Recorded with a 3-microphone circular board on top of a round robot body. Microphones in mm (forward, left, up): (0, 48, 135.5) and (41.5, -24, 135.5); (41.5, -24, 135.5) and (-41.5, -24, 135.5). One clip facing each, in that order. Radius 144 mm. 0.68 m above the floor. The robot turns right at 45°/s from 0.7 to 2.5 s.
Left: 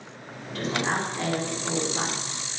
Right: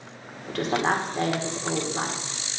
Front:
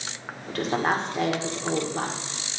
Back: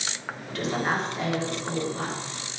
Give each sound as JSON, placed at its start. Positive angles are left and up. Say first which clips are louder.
{"t": 0.5, "sound": "a woman speaking", "louder": "right 3 dB, front 2 dB", "azimuth_deg": -40, "distance_m": 2.5}